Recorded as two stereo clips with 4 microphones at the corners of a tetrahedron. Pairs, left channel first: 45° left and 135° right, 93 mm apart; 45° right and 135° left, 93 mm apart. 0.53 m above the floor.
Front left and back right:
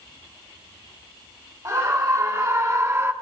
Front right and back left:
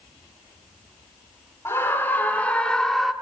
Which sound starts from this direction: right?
A scream, at 1.6 s.